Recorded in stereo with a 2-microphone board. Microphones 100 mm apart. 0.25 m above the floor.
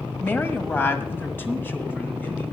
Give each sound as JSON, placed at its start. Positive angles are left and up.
{"t": 0.2, "sound": "a woman speaking", "side_deg": 20, "distance_m": 1.4}